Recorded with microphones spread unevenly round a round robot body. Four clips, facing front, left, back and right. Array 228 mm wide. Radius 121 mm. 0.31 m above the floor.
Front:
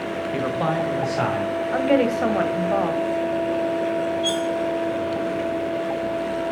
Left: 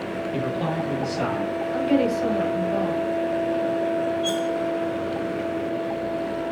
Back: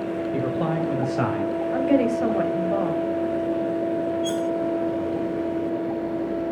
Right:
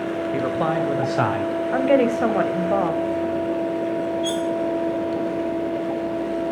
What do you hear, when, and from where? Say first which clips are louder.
0.3 s a man speaking: right 4 dB, front 3 dB; 105° right, 1.6 m; by 1.5 s 100° right, 2.5 m
1.7 s a woman speaking: right 4 dB, front 1 dB; 70° right, 1.6 m
4.2 s cutlery clinking: right 1 dB, front 1 dB; 160° right, 0.6 m